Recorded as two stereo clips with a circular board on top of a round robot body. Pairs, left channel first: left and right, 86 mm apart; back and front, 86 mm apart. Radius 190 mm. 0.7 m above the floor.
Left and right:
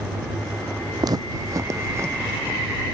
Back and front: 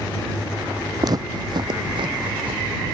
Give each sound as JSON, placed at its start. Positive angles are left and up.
{"t": 1.0, "sound": "footsteps", "azimuth_deg": -45}